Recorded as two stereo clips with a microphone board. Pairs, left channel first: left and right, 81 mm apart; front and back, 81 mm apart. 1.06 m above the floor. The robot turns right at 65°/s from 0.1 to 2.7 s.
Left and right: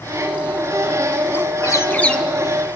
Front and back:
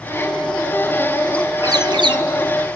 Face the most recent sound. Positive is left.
turn(degrees=-155)